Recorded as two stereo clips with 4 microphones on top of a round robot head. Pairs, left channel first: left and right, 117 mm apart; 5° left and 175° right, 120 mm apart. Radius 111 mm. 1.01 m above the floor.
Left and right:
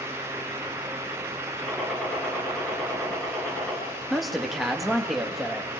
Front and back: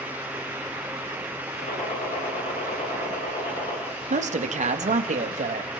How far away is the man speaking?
About 1.9 m.